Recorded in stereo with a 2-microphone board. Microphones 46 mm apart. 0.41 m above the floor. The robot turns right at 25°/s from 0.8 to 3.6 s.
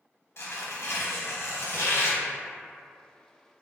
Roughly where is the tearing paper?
Ahead left.